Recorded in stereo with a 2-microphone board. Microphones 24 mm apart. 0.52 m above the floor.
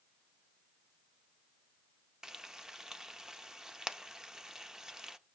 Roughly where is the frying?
Right.